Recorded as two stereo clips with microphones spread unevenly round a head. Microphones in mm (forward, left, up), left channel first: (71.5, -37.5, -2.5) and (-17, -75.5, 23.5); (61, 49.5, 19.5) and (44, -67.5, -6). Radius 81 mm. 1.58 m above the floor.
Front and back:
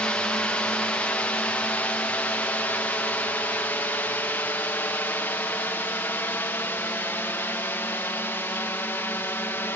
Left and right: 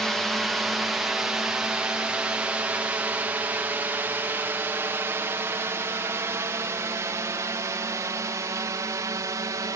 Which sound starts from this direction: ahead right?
A drone, at 0.0 s.